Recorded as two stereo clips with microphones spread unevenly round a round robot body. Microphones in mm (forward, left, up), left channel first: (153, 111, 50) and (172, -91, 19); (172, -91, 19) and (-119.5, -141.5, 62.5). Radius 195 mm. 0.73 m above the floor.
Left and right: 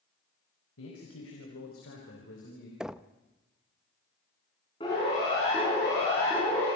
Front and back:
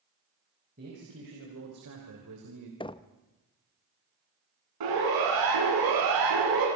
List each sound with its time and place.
0.8 s a man speaking: 120° left, 4 m; by 2.7 s 155° left, 3 m
2.8 s knocking: 20° right, 0.7 m
4.8 s a siren: 170° left, 9 m; by 6.7 s straight behind, 7.5 m